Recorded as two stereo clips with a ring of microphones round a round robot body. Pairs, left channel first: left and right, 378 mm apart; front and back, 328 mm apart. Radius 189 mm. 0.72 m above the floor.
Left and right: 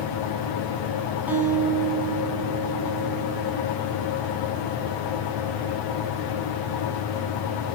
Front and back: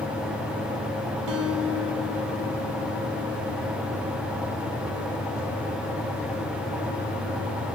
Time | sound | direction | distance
1.3 | a guitar | 175° right | 4.5 m